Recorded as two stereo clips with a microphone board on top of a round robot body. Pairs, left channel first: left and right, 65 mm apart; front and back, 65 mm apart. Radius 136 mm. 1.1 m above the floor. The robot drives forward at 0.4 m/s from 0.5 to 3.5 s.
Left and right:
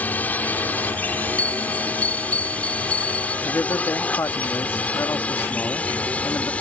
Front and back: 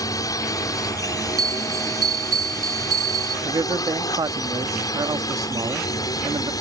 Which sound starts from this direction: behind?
A bell, at 1.4 s.